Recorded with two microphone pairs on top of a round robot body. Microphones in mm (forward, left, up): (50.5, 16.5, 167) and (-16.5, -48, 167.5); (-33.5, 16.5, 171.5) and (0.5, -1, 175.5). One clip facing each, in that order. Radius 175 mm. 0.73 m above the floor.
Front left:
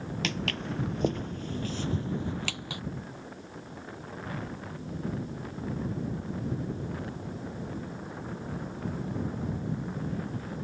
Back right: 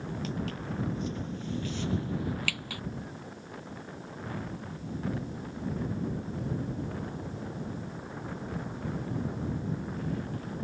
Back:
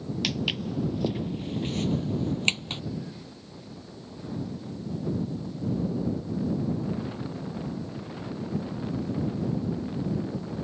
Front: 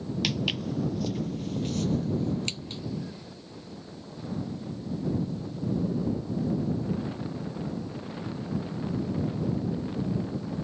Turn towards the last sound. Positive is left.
turn(degrees=115)